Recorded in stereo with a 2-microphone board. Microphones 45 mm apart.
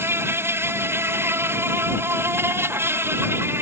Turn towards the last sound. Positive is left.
turn(degrees=-70)  # may be behind; listen again after turning